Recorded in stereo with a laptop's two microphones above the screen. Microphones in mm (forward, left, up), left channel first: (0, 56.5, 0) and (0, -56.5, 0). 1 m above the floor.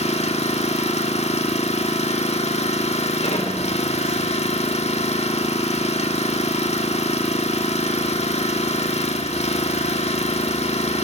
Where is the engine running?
65° left (ahead or behind), 1.6 m.